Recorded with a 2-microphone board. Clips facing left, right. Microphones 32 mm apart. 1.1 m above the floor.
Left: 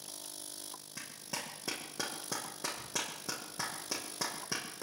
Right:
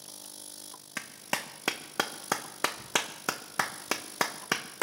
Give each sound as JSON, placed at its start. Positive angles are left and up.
{"t": 1.0, "sound": "a clap", "side_deg": -65, "distance_m": 0.9}